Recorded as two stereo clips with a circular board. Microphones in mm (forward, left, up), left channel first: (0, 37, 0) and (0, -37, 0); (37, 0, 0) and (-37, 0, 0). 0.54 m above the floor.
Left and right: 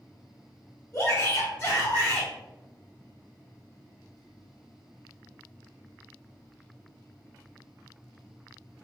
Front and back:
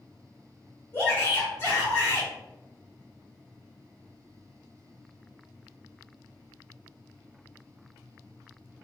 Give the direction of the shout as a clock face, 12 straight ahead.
10 o'clock.